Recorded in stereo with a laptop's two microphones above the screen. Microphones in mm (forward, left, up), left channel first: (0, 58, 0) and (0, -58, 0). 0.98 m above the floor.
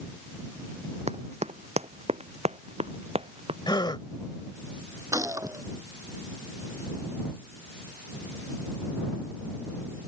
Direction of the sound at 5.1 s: 30° right (ahead or behind).